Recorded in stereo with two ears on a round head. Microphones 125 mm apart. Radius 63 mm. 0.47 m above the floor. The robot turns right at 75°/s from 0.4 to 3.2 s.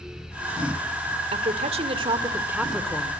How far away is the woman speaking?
About 1.8 m.